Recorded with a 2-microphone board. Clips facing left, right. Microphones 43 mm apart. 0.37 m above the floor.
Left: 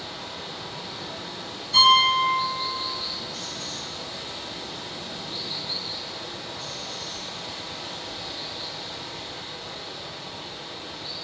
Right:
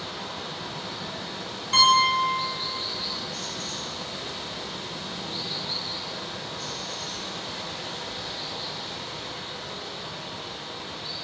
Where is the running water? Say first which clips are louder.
Right 2 dB; 60° right (ahead or behind), 2.5 m.